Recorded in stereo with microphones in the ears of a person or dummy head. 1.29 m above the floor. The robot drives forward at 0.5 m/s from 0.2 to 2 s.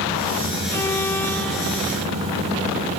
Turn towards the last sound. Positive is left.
turn(degrees=10)  # may be behind; listen again after turning